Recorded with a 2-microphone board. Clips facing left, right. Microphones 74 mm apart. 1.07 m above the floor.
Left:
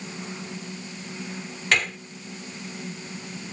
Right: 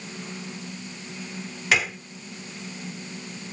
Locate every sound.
1.7 s a gunshot: 5° right (ahead or behind)